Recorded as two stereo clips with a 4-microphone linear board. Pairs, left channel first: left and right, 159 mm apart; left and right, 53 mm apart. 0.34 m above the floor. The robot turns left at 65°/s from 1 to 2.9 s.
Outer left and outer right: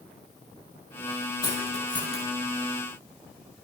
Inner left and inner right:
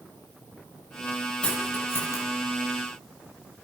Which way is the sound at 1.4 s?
25° left (ahead or behind).